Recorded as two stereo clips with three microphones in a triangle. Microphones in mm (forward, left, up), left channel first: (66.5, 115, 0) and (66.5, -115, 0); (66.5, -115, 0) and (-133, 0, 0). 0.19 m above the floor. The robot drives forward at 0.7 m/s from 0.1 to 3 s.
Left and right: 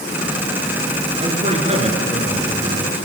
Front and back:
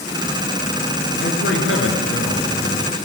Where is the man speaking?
30° right, 3.5 m; by 3.0 s 45° right, 3 m.